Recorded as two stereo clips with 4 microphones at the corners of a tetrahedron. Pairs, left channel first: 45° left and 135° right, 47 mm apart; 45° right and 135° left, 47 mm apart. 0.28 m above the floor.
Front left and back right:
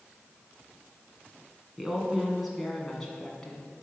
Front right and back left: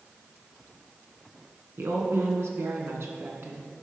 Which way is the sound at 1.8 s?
150° left.